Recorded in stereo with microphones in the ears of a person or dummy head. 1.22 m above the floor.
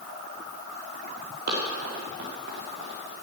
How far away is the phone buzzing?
I don't hear a phone buzzing.